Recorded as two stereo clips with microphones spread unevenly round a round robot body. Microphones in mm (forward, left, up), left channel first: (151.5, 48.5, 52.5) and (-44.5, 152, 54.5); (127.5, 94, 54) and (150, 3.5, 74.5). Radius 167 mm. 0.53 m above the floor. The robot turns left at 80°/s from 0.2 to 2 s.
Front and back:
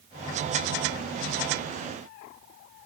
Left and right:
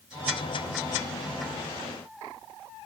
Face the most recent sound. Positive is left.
No sound to turn to.